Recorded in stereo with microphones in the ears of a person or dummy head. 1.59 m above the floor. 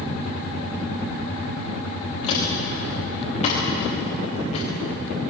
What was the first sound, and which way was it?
Footsteps, 35° left (ahead or behind).